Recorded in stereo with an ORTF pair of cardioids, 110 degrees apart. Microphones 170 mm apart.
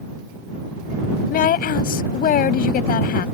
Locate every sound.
1.3 s a woman speaking: 60° left